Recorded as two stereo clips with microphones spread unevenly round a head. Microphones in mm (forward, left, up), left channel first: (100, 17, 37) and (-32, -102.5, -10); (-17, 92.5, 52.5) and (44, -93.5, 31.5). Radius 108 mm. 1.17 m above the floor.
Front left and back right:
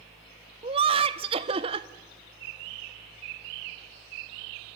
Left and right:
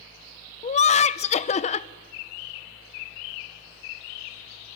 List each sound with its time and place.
0.6 s laughter: 165° left, 0.6 m